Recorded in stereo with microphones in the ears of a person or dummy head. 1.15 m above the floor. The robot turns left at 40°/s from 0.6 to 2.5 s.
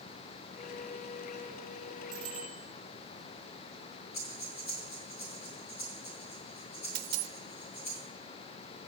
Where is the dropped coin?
50° right (ahead or behind), 0.9 m.